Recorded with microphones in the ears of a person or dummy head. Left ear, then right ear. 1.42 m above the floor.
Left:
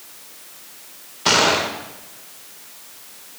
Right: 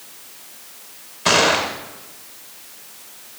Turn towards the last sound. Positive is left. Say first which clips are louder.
# right 1 dB
turn(degrees=10)  # may be behind; listen again after turning